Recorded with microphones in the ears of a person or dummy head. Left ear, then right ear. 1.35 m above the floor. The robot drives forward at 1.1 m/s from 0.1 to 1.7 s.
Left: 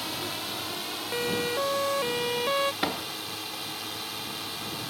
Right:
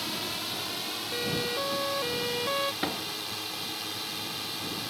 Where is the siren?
25° left (ahead or behind); by 2.7 s 20° left (ahead or behind).